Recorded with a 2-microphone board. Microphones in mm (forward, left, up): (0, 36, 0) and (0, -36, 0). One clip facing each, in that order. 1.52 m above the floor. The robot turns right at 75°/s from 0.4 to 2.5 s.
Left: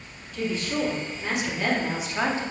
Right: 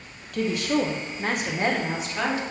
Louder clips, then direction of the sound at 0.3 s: Right 4 dB; 120° right.